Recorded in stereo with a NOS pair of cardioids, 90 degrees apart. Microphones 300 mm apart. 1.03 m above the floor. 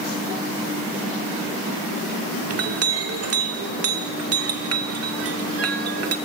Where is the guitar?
I don't hear a guitar.